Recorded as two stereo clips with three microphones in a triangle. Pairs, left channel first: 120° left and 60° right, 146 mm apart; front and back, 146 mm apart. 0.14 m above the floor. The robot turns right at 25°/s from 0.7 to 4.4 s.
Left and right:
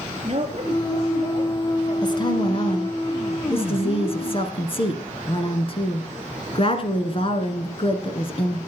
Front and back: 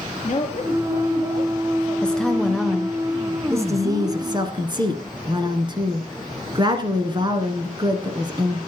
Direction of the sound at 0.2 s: 20° right.